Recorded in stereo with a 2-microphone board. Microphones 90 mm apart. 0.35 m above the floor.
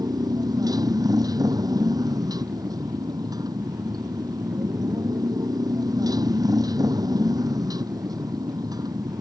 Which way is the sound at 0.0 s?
45° right (ahead or behind).